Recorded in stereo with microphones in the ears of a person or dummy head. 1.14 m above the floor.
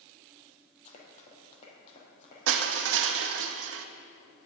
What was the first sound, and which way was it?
Running footsteps, 40° left (ahead or behind).